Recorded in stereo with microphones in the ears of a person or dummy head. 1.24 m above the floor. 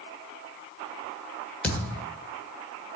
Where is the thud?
10° left (ahead or behind), 1.7 m.